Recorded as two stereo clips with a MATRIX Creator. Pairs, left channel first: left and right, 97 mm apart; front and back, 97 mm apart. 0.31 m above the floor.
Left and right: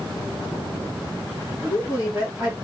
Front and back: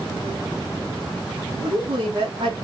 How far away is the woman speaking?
About 3 m.